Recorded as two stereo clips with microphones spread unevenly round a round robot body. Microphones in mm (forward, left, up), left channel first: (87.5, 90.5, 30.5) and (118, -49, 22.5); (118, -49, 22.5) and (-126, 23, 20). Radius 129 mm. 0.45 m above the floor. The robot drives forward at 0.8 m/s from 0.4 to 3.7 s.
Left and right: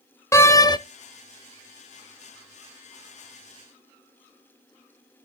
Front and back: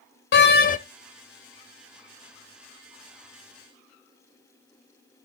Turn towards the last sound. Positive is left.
turn(degrees=165)